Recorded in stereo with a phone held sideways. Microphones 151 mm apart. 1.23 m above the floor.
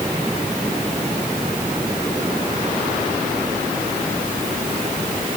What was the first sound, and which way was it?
Only background noise.